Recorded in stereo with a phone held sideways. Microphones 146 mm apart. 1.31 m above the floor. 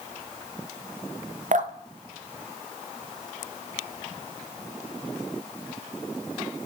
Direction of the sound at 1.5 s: 65° right (ahead or behind).